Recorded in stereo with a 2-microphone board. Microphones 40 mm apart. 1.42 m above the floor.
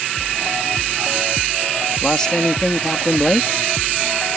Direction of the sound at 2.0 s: 15° left (ahead or behind).